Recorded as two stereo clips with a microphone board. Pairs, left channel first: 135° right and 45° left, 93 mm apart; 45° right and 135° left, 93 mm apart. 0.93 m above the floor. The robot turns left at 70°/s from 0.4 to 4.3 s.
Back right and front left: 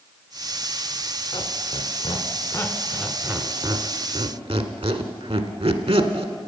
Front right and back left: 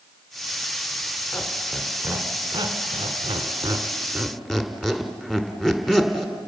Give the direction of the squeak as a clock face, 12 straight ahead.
4 o'clock.